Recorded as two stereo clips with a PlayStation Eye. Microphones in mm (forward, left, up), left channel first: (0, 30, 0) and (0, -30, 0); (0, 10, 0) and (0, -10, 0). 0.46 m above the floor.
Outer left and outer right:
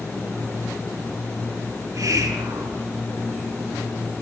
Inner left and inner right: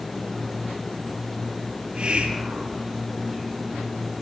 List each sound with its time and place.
1.8 s a hiss: 80° right, 6 m